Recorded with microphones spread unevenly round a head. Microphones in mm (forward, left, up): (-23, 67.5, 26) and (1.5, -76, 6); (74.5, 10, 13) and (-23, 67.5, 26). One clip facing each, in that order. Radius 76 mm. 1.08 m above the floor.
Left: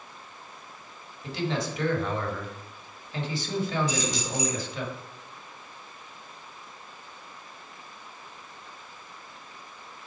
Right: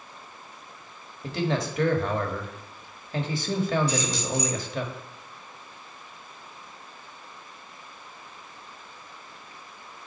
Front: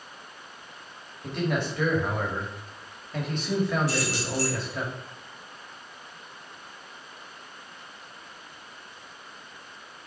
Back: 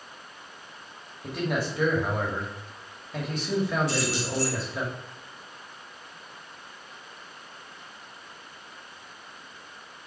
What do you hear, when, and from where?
1.2 s a man speaking: 125° right, 1.6 m
3.9 s keys jangling: 170° left, 3.5 m